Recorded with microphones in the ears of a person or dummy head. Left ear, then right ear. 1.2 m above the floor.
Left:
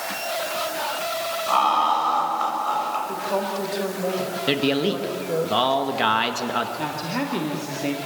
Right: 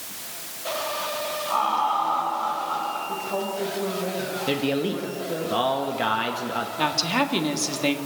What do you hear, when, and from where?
1.5 s laughter: 65° left (ahead or behind), 7.5 m
3.1 s a woman speaking: 35° left (ahead or behind), 4.5 m
4.5 s a man speaking: 15° left (ahead or behind), 1.9 m
6.8 s a woman speaking: 45° right (ahead or behind), 2 m